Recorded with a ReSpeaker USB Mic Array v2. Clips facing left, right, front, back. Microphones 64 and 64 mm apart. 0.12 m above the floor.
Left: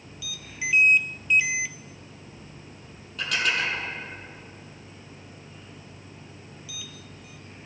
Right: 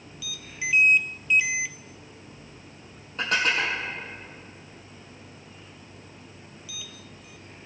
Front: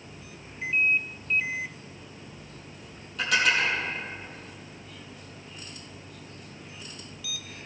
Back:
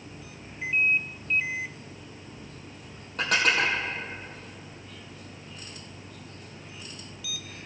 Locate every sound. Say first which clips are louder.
3.2 s dishes clattering: right 2 dB, even; 145° right, 2.5 m